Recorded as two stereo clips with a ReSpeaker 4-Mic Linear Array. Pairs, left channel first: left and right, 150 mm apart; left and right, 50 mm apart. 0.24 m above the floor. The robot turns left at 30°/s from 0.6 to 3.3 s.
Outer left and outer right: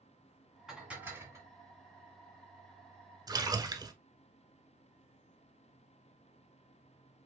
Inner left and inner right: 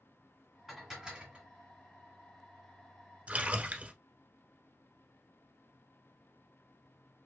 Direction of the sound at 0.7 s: 5° right (ahead or behind).